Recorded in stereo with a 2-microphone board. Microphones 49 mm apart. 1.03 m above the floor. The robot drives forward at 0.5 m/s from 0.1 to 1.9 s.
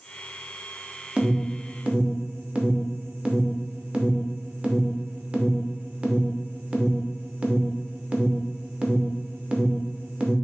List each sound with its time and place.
1.2 s an alarm: 25° right (ahead or behind), 0.7 m